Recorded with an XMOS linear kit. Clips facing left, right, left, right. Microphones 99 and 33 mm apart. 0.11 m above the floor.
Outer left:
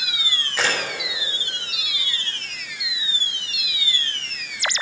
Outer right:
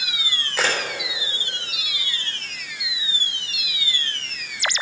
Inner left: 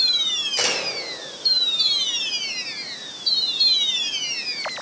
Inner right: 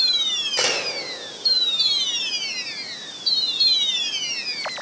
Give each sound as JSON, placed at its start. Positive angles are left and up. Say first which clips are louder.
{"t": 0.6, "sound": "a camera shutter", "louder": "outer right 1 dB, inner right 2 dB", "side_deg": -5, "distance_m": 3.5}